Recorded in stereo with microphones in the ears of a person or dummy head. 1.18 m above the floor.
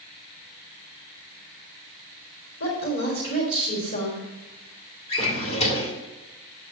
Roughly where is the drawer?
Left.